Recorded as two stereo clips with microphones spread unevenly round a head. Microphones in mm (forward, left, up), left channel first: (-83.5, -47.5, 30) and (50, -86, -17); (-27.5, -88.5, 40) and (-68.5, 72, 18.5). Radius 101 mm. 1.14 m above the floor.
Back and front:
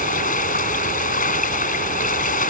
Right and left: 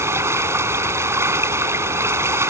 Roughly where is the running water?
Behind.